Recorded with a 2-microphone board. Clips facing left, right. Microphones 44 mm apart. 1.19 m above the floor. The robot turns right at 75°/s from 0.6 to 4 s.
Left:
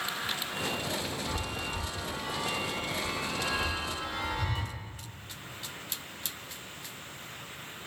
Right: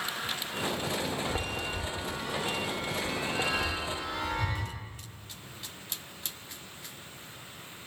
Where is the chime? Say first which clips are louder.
Right 2 dB; 10° left (ahead or behind), 0.9 m; by 4.7 s 35° right (ahead or behind), 0.9 m.